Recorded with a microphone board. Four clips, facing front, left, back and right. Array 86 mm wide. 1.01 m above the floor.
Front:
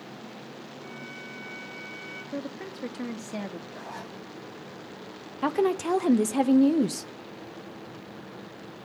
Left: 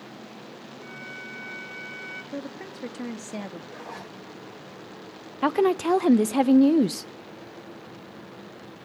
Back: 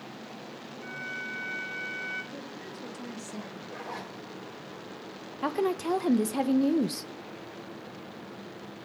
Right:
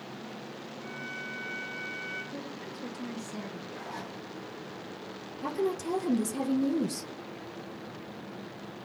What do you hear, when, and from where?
0.8 s a violin: 145° left, 6 m
2.3 s a woman speaking: 50° left, 1.7 m
3.7 s a zipper: 140° left, 5.5 m
5.4 s a woman speaking: 80° left, 0.7 m